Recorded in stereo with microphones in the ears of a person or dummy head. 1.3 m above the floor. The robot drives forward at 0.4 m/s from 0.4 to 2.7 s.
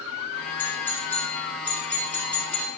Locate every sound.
0.6 s a doorbell: 10° left (ahead or behind), 4 m; by 2.7 s 5° left (ahead or behind), 4.5 m